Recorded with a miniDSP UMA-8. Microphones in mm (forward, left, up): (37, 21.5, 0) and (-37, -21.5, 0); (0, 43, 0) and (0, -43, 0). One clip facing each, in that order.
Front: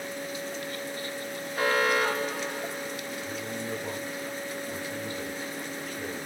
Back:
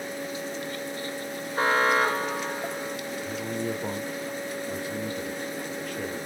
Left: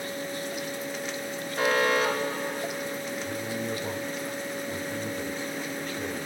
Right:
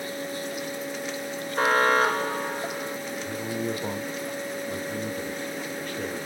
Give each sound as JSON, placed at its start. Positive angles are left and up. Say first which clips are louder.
{"t": 1.6, "sound": "an alarm", "louder": "back 3 dB, right 3 dB", "azimuth_deg": -110, "distance_m": 2.5}
{"t": 3.2, "sound": "a man speaking", "louder": "back 7 dB, right 5 dB", "azimuth_deg": -125, "distance_m": 3.5}